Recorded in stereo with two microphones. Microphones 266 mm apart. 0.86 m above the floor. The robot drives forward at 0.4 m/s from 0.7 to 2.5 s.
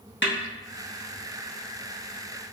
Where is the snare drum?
45° left (ahead or behind), 1.2 m.